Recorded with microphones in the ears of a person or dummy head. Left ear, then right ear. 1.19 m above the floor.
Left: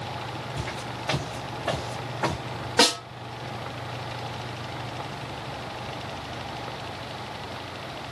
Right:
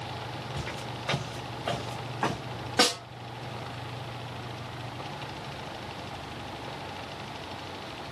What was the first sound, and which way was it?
Footsteps, 15° right (ahead or behind).